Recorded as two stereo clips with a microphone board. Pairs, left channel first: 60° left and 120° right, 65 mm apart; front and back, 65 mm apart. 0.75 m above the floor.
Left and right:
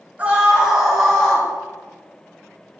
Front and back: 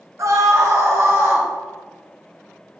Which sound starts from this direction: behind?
A scream, at 0.2 s.